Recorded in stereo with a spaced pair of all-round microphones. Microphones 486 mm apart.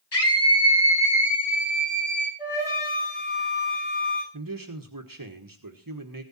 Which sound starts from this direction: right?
A man speaking, at 4.3 s.